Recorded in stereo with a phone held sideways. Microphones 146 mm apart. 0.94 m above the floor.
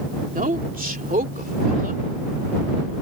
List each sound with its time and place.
0.3 s a woman speaking: 75° right (ahead or behind); by 2.0 s 80° right